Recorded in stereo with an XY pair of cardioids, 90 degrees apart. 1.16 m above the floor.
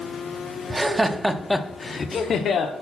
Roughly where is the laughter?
Ahead.